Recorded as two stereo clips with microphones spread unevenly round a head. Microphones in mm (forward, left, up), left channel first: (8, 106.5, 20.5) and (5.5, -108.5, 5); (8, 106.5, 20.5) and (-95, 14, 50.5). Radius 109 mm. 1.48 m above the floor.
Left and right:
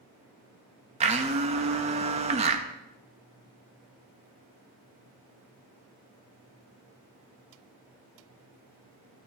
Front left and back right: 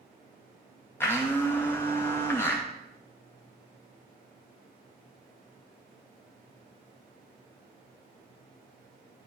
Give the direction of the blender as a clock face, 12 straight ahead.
2 o'clock.